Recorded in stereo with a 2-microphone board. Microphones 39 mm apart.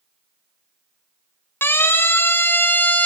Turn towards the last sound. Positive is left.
turn(degrees=40)  # may be behind; listen again after turning